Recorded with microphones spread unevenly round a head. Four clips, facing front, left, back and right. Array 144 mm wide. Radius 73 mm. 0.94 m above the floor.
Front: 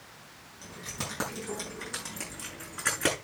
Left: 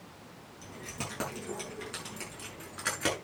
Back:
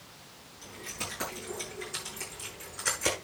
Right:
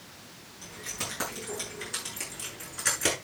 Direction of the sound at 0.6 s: 40° left.